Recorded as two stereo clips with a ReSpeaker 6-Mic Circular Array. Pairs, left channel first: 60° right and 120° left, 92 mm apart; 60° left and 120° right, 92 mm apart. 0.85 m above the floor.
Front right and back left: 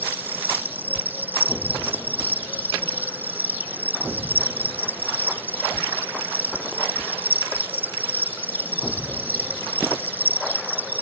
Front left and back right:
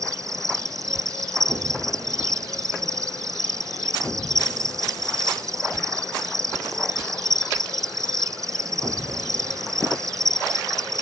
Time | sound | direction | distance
0.0 | an insect | 170° right | ?